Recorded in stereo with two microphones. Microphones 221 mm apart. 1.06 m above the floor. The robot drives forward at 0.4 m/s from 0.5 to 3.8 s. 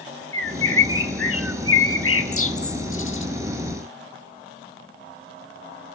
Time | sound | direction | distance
0.3 | a bird | 65° left (ahead or behind) | 1.4 m